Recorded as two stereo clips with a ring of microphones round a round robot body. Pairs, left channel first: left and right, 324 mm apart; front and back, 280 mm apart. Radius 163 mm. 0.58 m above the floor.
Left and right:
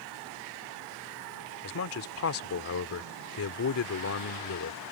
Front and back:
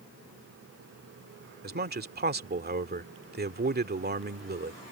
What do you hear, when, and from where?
1.6 s a man speaking: 130° left